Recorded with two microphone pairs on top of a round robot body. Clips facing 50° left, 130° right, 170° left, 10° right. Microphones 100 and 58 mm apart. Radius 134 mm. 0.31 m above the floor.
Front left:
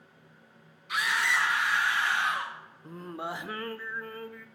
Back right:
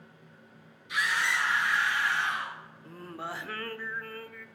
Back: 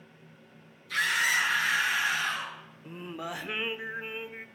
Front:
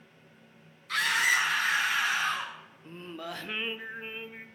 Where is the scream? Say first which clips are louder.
Front left 1 dB, front 1 dB; 20° left, 4 m; by 2.5 s 35° left, 4.5 m.